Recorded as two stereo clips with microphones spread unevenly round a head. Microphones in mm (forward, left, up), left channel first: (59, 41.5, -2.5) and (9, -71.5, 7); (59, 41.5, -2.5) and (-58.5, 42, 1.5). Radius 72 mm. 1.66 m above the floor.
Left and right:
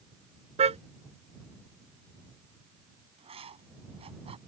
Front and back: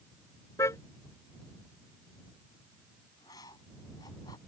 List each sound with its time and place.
0.6 s a car horn: 75° right
3.2 s writing: 70° right